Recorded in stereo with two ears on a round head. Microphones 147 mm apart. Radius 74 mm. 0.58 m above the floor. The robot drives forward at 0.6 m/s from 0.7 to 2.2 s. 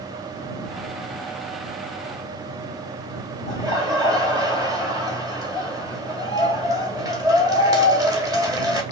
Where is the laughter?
25° right (ahead or behind), 2 m.